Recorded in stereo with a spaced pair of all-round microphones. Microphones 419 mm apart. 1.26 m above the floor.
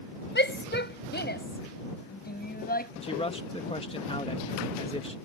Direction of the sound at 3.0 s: 15° left (ahead or behind).